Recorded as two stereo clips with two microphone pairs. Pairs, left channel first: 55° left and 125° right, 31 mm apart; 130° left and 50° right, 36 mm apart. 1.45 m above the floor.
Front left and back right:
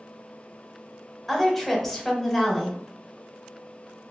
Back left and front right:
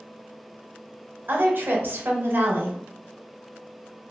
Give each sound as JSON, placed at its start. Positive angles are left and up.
{"t": 1.3, "sound": "a woman speaking", "azimuth_deg": -25, "distance_m": 0.8}